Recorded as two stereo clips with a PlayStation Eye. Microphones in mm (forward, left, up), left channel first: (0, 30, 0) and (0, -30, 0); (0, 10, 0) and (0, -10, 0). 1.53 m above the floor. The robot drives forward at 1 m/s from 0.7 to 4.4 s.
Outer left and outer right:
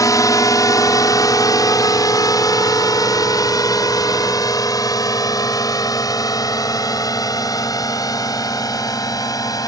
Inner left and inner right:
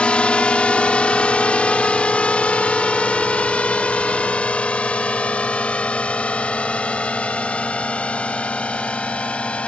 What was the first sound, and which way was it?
A drone, 65° left (ahead or behind).